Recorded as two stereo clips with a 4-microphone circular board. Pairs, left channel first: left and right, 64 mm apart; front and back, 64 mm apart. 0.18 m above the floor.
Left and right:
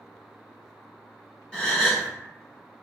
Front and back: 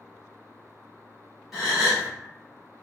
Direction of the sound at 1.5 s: 110° left.